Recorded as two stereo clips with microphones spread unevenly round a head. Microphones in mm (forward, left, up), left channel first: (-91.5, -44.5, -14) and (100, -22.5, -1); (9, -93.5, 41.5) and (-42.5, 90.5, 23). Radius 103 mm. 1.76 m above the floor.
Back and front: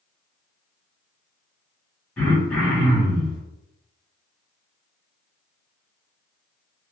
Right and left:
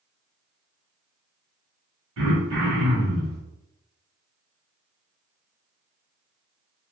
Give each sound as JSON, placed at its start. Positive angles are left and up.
{"t": 2.2, "sound": "throat clearing", "azimuth_deg": 100, "distance_m": 1.5}